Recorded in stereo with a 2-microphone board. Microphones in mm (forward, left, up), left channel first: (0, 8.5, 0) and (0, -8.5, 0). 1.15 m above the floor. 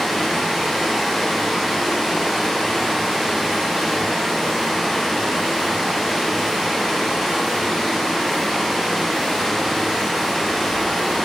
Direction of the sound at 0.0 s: 35° left (ahead or behind).